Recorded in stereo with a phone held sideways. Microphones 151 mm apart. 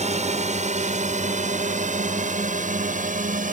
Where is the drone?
50° right (ahead or behind); by 3.5 s 60° right (ahead or behind).